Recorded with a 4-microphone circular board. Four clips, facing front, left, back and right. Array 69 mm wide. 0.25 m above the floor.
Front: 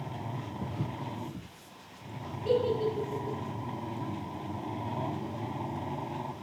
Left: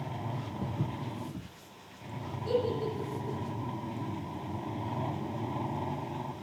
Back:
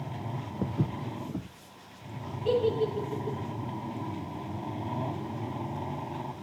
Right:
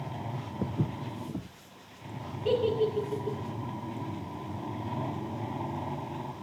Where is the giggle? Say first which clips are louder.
Right 4 dB, back 1 dB; 100° right, 5 m.